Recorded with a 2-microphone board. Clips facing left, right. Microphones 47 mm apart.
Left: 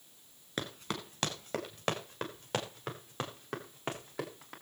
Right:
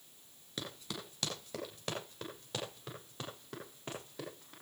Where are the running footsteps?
50° left (ahead or behind), 4.5 m; by 4.5 s 75° left (ahead or behind), 7 m.